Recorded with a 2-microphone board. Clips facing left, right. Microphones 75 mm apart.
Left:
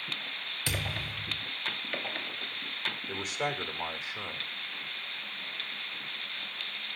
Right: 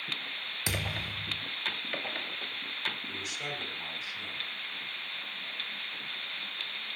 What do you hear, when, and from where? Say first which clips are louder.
0.7 s a thud: even; 20° right (ahead or behind), 3 m
3.1 s a man speaking: left 6 dB; 45° left (ahead or behind), 2.5 m